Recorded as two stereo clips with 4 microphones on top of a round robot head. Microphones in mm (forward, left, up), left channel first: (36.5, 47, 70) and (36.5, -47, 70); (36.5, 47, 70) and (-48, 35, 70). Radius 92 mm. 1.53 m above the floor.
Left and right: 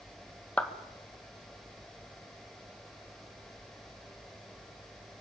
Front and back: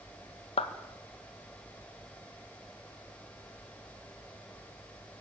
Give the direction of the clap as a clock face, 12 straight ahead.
12 o'clock.